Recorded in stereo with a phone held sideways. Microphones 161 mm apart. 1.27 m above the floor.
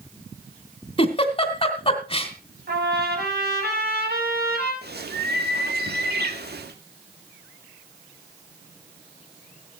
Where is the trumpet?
80° right, 5.5 m.